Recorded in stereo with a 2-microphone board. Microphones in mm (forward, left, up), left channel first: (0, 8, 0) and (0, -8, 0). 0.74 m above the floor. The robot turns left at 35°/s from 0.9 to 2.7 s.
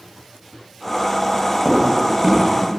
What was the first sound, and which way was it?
Footsteps, 35° right (ahead or behind).